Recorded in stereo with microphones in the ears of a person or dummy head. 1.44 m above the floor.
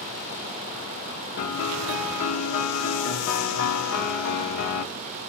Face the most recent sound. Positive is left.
turn(degrees=60)  # may be behind; listen again after turning